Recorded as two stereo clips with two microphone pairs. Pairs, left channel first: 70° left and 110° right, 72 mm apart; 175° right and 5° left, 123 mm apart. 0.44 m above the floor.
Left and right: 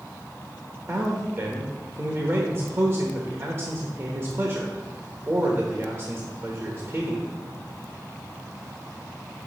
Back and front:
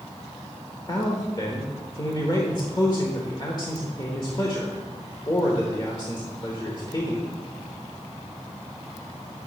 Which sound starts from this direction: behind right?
A man speaking, at 0.9 s.